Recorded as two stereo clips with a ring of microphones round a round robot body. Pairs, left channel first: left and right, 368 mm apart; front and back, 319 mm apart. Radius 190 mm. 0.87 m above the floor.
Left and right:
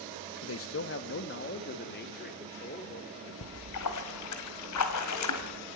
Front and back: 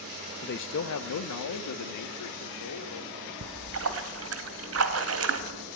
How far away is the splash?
About 2 m.